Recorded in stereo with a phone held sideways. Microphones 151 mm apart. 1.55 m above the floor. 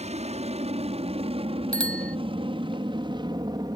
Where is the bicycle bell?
10° left (ahead or behind).